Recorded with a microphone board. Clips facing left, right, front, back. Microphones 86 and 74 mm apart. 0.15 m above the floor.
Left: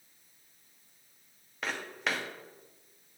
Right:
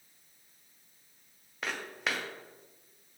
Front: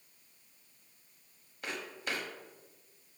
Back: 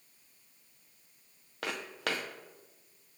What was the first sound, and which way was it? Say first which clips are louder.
Footsteps: left 1 dB, back 3 dB; straight behind.